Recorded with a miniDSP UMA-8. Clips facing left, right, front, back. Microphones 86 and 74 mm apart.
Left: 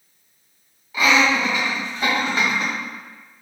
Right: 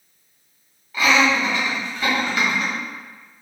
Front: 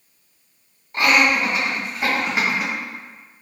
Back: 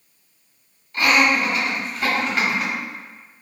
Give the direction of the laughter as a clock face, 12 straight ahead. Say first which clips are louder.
Even, even; 12 o'clock.